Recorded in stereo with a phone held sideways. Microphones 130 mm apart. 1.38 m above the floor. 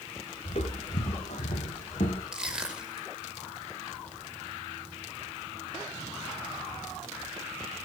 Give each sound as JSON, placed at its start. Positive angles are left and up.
{"t": 0.5, "sound": "footsteps", "side_deg": 60, "distance_m": 3.5}
{"t": 2.3, "sound": "crushing", "side_deg": -5, "distance_m": 5.0}